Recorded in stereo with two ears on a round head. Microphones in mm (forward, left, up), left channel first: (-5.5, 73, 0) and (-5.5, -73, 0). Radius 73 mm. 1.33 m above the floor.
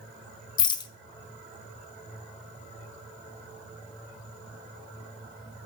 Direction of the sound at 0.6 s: 25° left (ahead or behind).